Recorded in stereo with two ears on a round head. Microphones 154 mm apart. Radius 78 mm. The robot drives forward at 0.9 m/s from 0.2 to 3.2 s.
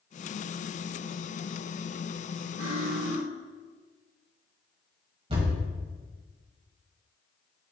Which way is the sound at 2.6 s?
55° right (ahead or behind).